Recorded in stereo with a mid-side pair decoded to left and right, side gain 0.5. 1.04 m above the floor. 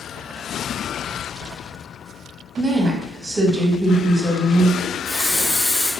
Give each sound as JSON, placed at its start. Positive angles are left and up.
{"t": 2.6, "sound": "a woman speaking", "azimuth_deg": -25, "distance_m": 1.1}
{"t": 4.8, "sound": "a running tap", "azimuth_deg": 60, "distance_m": 1.5}